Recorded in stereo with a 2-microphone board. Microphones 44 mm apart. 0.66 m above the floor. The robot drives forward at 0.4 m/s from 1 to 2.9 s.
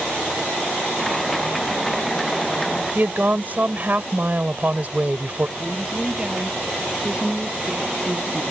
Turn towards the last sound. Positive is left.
turn(degrees=-15)  # may be behind; listen again after turning